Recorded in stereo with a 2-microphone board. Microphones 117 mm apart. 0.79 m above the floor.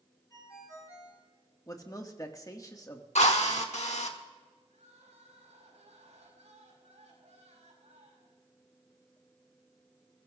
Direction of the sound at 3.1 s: 70° left (ahead or behind).